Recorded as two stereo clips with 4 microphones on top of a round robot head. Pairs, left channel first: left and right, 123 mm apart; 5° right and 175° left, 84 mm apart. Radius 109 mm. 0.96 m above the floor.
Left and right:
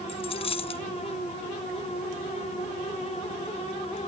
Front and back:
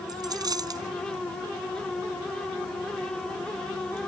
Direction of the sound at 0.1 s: 135° left.